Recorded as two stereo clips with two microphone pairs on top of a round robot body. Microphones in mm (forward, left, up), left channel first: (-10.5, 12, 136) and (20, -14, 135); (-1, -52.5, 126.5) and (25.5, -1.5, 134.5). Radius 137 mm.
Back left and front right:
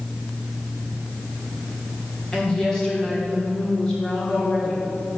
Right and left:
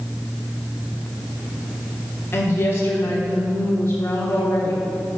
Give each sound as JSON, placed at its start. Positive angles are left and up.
{"t": 2.3, "sound": "a woman speaking", "azimuth_deg": -155, "distance_m": 1.7}